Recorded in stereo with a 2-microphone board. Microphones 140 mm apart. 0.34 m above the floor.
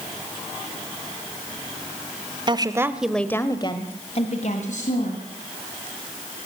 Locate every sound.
2.5 s a woman speaking: 35° right (ahead or behind), 1.4 m; by 5.2 s 65° left (ahead or behind), 3 m